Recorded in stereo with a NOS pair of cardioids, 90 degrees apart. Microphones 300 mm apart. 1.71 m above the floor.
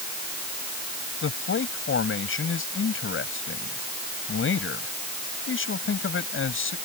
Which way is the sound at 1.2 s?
45° left.